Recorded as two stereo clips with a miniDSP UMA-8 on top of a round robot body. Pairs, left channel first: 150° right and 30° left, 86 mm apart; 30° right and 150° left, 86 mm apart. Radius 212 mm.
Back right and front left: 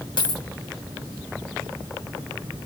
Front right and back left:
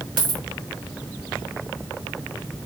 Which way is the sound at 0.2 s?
Straight behind.